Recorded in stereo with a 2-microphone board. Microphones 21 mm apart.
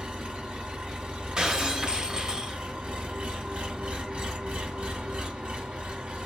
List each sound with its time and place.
0.0 s an engine running: 65° right (ahead or behind), 0.9 m
1.4 s breaking glass: 45° right (ahead or behind), 0.6 m